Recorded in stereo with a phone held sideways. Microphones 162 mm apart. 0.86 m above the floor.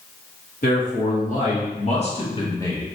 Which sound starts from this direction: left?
A man speaking, at 0.6 s.